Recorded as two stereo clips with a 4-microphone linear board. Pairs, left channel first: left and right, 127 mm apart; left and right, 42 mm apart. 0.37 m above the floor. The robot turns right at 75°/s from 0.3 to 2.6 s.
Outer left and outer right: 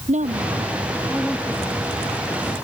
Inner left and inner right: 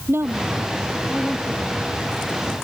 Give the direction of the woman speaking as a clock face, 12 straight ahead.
2 o'clock.